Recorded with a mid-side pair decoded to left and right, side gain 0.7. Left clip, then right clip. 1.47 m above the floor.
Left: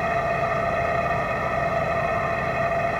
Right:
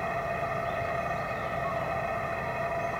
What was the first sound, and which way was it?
An engine running, 35° left.